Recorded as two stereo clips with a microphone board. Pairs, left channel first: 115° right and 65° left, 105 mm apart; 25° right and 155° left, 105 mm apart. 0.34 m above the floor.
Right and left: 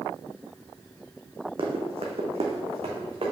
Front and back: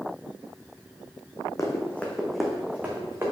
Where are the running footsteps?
35° left, 1.2 m; by 3.3 s 95° left, 1.8 m.